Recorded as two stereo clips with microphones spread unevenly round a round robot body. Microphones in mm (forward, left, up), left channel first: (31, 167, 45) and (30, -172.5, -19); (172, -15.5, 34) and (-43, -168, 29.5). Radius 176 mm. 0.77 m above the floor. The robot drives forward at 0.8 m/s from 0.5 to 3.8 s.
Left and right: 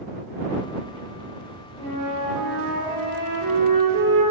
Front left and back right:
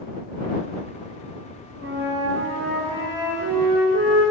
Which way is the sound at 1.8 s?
95° right.